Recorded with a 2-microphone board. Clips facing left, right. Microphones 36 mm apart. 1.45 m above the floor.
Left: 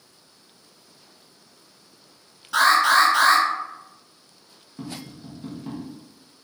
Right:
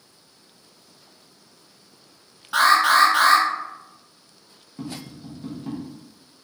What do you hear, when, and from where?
2.5 s an alarm: 25° right (ahead or behind), 1.3 m
4.8 s tapping: centre (ahead or behind), 0.6 m